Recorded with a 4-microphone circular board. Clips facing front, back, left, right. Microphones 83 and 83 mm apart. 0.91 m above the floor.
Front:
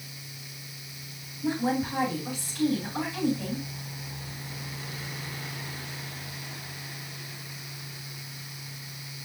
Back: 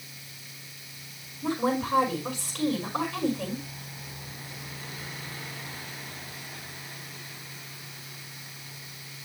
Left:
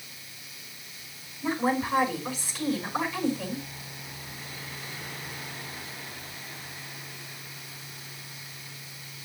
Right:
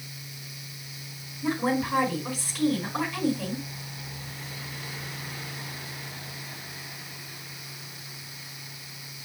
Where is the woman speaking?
175° right, 4.5 m.